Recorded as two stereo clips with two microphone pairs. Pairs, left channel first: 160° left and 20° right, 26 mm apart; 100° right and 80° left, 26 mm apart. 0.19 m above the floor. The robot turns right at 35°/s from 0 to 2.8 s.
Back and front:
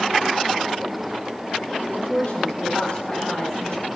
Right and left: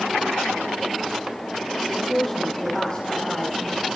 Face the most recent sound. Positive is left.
turn(degrees=-170)